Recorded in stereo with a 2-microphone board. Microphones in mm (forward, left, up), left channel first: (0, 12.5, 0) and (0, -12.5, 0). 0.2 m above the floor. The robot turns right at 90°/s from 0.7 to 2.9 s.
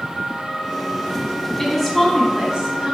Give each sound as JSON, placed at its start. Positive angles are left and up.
{"t": 1.6, "sound": "a woman speaking", "azimuth_deg": 160, "distance_m": 1.5}